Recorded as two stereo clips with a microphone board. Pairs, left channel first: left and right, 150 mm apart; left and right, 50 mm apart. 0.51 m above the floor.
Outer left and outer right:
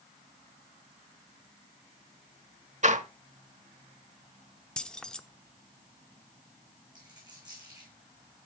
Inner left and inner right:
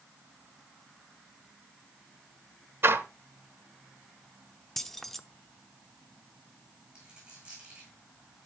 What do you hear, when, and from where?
2.8 s a door slam: 50° right (ahead or behind), 1.0 m
4.8 s keys jangling: 5° left (ahead or behind), 0.6 m
7.0 s a dropped coin: 25° right (ahead or behind), 6 m